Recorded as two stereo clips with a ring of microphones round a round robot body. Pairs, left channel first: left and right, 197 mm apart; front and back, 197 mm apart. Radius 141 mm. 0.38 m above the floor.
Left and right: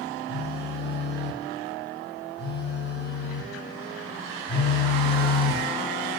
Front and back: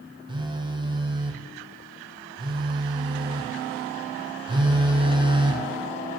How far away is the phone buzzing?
About 0.5 m.